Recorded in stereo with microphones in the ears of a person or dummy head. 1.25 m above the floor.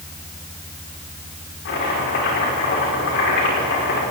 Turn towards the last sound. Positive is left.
turn(degrees=65)  # may be behind; listen again after turning